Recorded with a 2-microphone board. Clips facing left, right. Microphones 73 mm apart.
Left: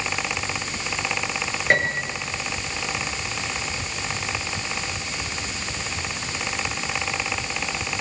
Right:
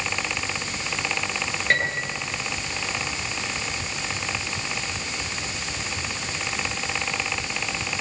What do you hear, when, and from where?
1.7 s a piano: 20° left (ahead or behind), 6.5 m